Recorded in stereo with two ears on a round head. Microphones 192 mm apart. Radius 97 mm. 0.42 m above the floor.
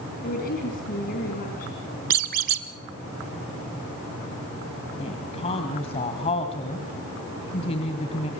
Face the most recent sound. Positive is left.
turn(degrees=30)  # may be behind; listen again after turning